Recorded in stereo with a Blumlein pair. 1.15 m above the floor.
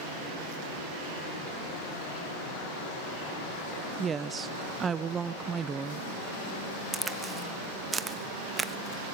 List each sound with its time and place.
4.0 s a woman speaking: 20° right, 0.8 m
6.9 s a crack: 10° right, 0.8 m